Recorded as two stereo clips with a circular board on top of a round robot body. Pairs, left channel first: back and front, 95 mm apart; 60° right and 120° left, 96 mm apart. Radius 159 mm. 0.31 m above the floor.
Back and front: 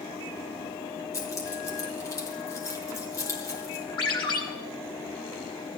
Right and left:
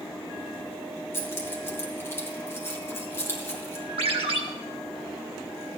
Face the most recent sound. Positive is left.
turn(degrees=140)